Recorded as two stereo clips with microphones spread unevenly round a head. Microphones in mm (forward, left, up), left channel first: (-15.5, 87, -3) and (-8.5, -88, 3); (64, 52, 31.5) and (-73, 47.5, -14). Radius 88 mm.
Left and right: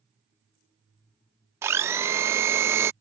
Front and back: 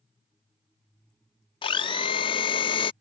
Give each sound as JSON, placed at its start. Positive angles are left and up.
{"t": 1.6, "sound": "a blender", "azimuth_deg": -15}